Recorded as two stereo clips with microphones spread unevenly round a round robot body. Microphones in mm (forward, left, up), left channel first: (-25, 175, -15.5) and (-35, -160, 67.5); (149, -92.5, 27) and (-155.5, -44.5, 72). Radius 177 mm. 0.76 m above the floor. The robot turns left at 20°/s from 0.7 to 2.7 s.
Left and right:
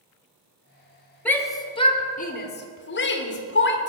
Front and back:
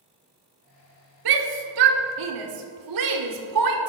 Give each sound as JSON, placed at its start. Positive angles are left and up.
{"t": 1.2, "sound": "a shout", "azimuth_deg": 170, "distance_m": 1.8}